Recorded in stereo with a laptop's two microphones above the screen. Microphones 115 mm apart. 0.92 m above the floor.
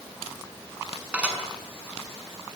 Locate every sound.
1.1 s dishes clattering: 10° right (ahead or behind), 5.5 m